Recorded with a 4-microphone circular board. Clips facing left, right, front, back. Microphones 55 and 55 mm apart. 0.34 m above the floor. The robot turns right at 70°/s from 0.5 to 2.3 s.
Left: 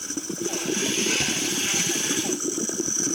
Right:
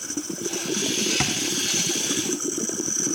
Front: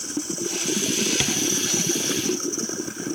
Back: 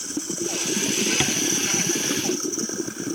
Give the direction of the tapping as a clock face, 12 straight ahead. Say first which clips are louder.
Right 1 dB, back 1 dB; 3 o'clock.